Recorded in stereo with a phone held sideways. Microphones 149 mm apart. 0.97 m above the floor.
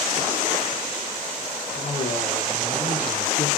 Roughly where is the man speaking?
Left.